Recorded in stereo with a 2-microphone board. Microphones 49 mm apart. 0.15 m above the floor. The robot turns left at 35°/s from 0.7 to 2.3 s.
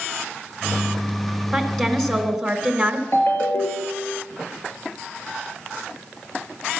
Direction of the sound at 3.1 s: 55° left (ahead or behind).